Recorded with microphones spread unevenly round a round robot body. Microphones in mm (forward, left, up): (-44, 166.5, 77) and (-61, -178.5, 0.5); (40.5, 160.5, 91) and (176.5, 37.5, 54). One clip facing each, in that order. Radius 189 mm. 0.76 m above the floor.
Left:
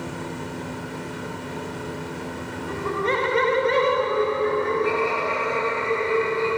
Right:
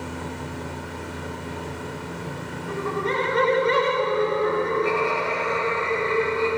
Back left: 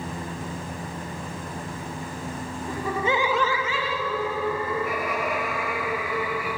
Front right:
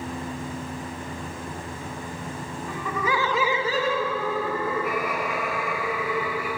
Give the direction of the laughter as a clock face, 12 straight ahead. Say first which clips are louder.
Left 1 dB, back left 2 dB; 9 o'clock.